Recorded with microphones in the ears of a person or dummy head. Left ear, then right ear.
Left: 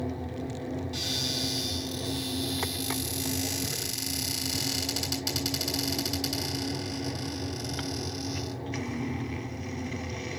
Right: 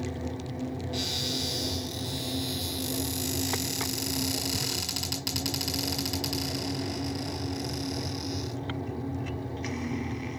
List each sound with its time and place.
0.9 s a cupboard door: 10° right (ahead or behind), 5 m